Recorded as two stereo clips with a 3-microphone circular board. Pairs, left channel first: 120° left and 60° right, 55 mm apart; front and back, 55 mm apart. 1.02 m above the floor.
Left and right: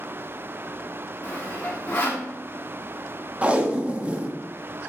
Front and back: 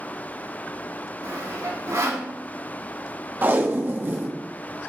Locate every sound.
1.2 s sawing: 175° left, 2.5 m
3.4 s tape being pulled: 125° right, 1.2 m